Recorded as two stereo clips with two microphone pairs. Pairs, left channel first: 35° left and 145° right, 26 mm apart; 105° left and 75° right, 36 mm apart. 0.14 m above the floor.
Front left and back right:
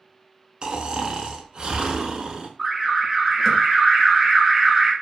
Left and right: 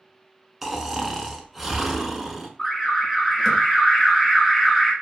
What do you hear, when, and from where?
0.6 s snoring: 160° right, 0.5 m
2.6 s an alarm: 165° left, 0.9 m